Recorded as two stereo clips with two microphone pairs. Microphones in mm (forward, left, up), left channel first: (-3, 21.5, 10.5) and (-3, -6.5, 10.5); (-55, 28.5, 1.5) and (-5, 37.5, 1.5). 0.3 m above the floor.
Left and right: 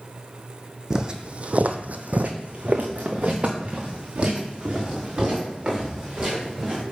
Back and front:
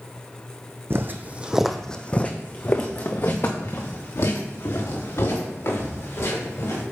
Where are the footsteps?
25° right, 0.7 m; by 6.8 s 150° right, 4 m.